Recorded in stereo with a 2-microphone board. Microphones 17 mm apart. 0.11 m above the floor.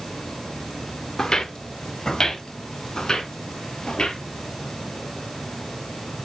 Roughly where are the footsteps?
Left.